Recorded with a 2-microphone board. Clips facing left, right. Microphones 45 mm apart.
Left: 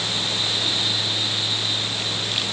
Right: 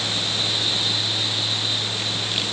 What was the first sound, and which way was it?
Only background noise.